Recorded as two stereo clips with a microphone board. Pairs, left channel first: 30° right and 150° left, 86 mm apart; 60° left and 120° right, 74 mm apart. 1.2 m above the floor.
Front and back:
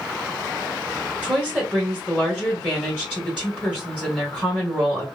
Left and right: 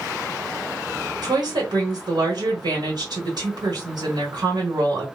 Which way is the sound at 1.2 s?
130° right.